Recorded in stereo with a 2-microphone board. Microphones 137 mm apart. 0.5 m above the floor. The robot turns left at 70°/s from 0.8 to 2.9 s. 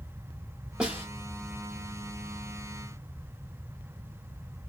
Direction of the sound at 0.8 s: 5° right (ahead or behind).